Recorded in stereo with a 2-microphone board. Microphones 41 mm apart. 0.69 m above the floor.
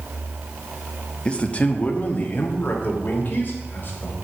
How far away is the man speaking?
About 1.0 m.